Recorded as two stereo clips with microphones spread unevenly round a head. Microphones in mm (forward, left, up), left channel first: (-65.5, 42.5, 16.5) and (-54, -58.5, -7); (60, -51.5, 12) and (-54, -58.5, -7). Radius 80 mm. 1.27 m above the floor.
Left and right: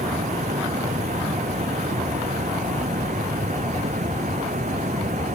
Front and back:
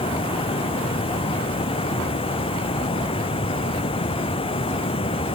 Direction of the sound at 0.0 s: 30° right.